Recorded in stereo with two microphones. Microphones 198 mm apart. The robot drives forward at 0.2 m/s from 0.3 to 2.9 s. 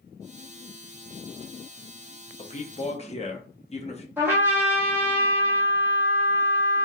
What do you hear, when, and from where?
2.4 s a man speaking: 35° left (ahead or behind), 0.6 m
4.2 s a trumpet: 10° right (ahead or behind), 1.1 m